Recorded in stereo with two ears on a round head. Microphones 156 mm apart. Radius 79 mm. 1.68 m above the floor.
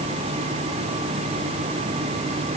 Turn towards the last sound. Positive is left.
No sound to turn to.